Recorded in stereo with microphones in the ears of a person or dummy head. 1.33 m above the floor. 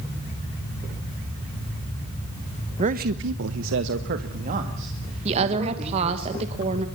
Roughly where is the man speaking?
Right.